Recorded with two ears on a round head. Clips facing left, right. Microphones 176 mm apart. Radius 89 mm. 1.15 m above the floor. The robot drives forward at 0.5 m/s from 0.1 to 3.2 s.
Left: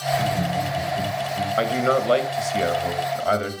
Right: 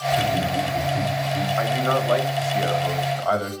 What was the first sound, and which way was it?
Laughter, 75° right (ahead or behind).